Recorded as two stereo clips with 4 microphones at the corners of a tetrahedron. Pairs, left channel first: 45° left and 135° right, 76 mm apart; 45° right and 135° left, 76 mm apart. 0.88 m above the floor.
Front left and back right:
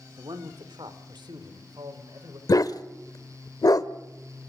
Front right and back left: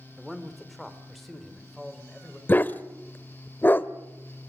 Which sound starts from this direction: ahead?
A dog barking, at 2.5 s.